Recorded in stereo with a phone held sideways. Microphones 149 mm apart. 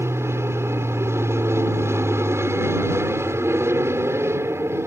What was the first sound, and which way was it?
An aircraft, 15° right (ahead or behind).